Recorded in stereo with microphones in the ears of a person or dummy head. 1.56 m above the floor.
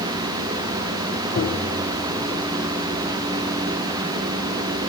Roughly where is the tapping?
Left.